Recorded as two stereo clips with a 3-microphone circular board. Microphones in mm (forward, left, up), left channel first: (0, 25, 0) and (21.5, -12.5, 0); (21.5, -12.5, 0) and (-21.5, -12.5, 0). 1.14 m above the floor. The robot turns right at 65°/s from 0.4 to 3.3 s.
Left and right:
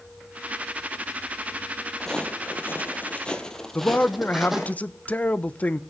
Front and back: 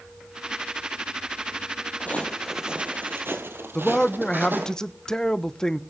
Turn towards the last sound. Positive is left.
turn(degrees=75)